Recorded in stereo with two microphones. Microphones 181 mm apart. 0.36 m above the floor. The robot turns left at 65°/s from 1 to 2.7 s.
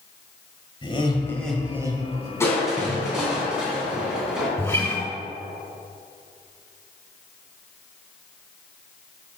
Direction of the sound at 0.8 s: 35° left.